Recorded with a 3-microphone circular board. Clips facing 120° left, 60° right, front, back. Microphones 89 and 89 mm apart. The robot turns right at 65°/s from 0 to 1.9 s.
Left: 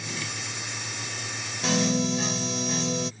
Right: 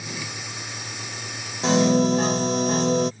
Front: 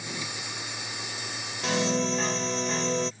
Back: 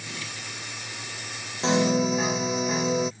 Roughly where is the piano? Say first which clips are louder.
Right 7 dB, back 5 dB; behind right.